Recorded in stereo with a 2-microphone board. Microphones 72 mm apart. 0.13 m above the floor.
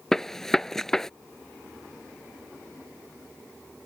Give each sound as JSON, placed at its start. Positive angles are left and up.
{"t": 0.1, "sound": "a gunshot", "side_deg": 5}